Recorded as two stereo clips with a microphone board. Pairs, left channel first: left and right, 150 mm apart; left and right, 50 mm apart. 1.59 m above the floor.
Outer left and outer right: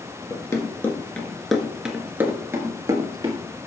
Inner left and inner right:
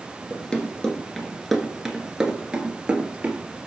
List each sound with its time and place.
0.3 s running footsteps: 25° left (ahead or behind), 1.7 m; by 3.4 s 30° right (ahead or behind), 2 m